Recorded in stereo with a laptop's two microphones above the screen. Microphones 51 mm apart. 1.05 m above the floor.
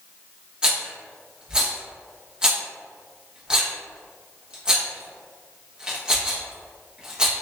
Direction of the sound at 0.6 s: 20° right (ahead or behind).